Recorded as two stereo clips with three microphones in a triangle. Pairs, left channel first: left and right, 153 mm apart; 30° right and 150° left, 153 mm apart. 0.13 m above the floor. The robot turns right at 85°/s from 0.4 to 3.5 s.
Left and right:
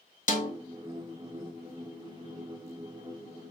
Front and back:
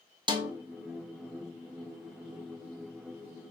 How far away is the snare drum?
About 0.5 m.